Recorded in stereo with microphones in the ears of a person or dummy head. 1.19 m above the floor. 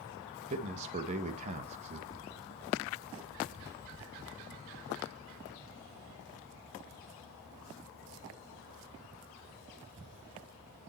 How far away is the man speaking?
About 1.2 m.